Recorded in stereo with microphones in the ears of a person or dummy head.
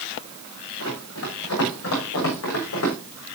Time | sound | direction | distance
0.8 | running footsteps | 75° left (ahead or behind) | 8.5 m